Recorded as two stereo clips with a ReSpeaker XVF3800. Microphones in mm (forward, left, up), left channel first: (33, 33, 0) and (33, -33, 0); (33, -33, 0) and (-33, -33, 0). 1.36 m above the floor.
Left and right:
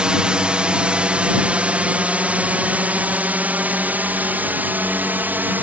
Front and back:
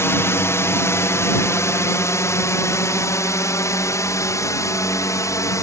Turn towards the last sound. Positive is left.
turn(degrees=-30)